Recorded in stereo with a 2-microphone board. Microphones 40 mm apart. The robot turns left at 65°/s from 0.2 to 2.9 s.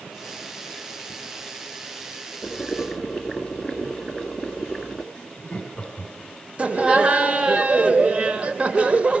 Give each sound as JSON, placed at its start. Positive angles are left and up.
{"t": 2.4, "sound": "boiling", "azimuth_deg": 30, "distance_m": 2.0}
{"t": 5.1, "sound": "laughter", "side_deg": 20, "distance_m": 2.5}
{"t": 6.6, "sound": "laughter", "side_deg": -35, "distance_m": 1.0}